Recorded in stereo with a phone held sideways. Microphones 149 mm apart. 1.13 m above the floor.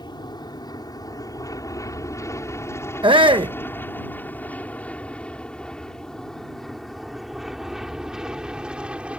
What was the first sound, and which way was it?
An aircraft, 30° left (ahead or behind).